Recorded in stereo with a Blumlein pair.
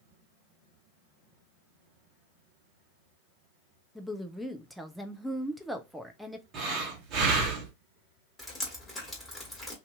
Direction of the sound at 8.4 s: 5° left.